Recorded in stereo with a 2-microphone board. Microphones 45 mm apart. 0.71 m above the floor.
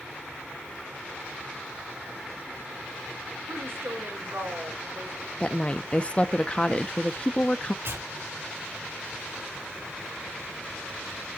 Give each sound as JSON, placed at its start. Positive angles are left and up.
{"t": 3.5, "sound": "a woman speaking", "side_deg": -75, "distance_m": 6.5}
{"t": 5.4, "sound": "a woman speaking", "side_deg": 25, "distance_m": 0.6}
{"t": 7.8, "sound": "tearing paper", "side_deg": -65, "distance_m": 4.5}